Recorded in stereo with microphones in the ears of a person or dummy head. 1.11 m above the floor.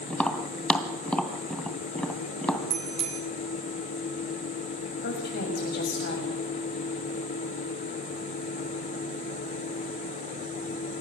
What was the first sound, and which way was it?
Tapping, 5° left (ahead or behind).